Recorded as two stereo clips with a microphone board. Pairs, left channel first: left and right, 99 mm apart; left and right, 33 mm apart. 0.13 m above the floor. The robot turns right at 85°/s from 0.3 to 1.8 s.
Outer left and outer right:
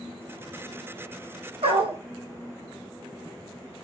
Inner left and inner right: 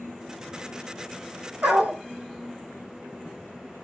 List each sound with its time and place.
1.6 s a dog barking: 75° right (ahead or behind), 1.8 m; by 2.0 s 65° right (ahead or behind), 1.8 m